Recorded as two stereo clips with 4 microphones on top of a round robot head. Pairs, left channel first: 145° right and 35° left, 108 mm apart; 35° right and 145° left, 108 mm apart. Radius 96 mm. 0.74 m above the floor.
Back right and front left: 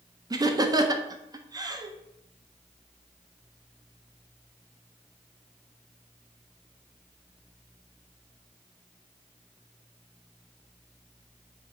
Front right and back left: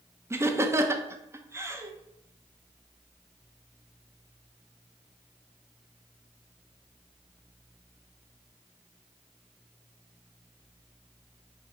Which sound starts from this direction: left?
Laughter, at 0.3 s.